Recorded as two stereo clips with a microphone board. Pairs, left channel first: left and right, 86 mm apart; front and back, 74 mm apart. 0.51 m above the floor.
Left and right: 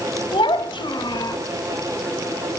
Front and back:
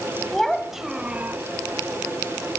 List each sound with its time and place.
0.3 s a child speaking: 85° left, 2.5 m; by 1.4 s 125° left, 1.2 m